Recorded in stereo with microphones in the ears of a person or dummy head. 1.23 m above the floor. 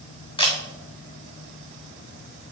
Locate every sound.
0.4 s a camera shutter: 25° left (ahead or behind), 1.4 m